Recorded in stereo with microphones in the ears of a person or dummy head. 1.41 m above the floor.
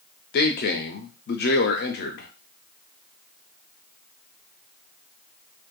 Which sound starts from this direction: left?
A man speaking, at 0.3 s.